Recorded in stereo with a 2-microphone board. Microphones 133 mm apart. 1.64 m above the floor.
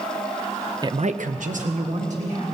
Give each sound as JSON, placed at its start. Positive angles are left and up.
{"t": 0.8, "sound": "a man speaking", "side_deg": -30, "distance_m": 0.6}